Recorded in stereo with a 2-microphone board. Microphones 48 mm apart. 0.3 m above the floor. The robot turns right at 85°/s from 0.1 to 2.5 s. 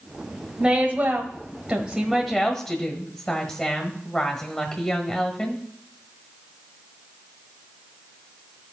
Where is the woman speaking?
155° right, 1.3 m; by 5.6 s 10° left, 1.3 m.